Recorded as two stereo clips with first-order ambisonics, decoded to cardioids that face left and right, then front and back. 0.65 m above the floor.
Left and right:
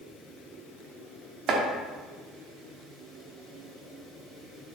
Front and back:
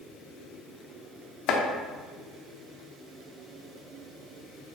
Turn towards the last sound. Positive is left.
turn(degrees=-35)